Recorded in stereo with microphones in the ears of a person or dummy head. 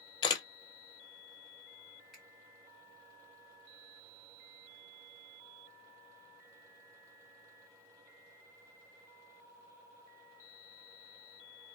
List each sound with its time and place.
0.2 s a camera shutter: 30° left (ahead or behind), 0.5 m
2.1 s a finger snap: 5° right (ahead or behind), 1.3 m